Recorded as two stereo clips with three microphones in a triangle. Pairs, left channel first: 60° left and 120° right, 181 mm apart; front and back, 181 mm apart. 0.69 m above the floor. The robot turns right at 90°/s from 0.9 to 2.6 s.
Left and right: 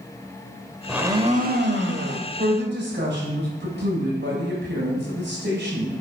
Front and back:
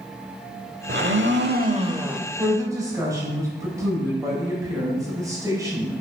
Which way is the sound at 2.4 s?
125° right.